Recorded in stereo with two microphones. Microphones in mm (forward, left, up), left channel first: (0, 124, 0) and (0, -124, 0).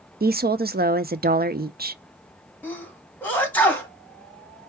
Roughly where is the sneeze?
Centre.